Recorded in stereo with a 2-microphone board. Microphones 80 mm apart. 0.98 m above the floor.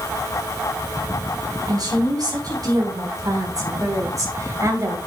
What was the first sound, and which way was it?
A woman speaking, 55° right (ahead or behind).